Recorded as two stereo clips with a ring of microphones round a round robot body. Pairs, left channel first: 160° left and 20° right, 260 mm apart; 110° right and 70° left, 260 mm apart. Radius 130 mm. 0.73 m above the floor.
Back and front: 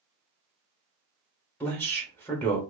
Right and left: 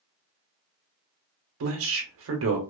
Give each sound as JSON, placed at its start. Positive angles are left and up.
{"t": 1.6, "sound": "a man speaking", "azimuth_deg": 75, "distance_m": 0.6}